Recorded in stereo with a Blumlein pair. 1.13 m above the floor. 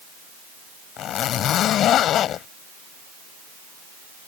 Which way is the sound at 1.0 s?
30° left.